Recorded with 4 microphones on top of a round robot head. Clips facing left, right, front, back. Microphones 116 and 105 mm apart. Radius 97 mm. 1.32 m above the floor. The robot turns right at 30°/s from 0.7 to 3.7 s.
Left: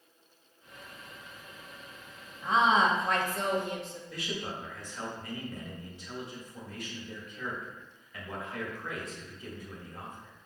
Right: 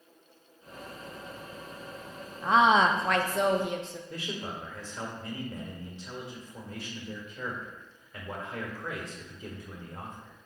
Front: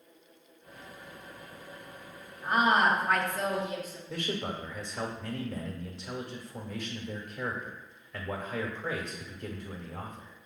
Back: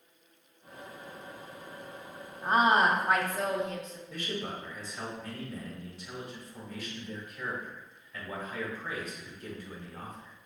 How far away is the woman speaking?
About 0.6 m.